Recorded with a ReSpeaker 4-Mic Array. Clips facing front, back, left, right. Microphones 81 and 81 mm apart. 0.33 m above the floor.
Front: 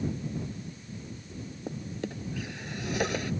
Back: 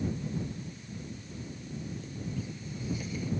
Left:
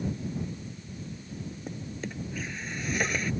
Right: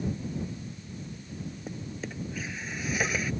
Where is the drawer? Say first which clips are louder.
Front 7 dB, left 2 dB; straight ahead.